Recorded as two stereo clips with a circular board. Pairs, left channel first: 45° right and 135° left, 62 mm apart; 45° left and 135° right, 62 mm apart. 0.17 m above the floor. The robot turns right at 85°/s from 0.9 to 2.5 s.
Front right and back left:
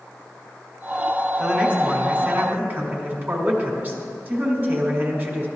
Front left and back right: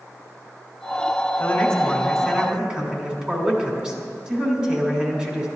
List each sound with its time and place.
1.4 s a man speaking: 70° left, 1.8 m; by 5.5 s 165° left, 1.8 m